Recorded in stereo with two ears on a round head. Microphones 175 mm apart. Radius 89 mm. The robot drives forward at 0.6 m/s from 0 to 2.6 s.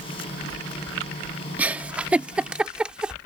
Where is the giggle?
10° right (ahead or behind); by 3.1 s 5° right (ahead or behind).